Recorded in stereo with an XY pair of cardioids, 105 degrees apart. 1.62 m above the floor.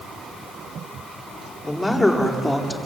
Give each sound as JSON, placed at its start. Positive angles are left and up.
{"t": 1.6, "sound": "a man speaking", "azimuth_deg": 15, "distance_m": 5.5}